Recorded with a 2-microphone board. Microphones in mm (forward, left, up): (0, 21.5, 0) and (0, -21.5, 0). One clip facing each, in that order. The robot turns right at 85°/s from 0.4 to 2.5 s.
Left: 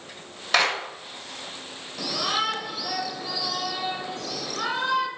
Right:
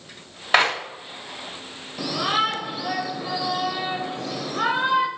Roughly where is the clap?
Right.